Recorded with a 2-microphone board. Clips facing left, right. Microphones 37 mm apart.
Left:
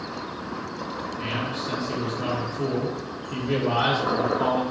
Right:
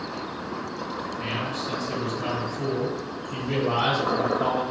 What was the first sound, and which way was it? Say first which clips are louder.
A man speaking: left 1 dB; 35° left (ahead or behind).